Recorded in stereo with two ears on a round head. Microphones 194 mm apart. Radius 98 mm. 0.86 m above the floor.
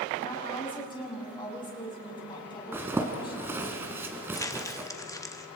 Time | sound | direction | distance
0.2 | a woman speaking | 25° left (ahead or behind) | 6.5 m
2.7 | a zipper | 10° right (ahead or behind) | 2 m
4.3 | crumpling | 15° left (ahead or behind) | 1.4 m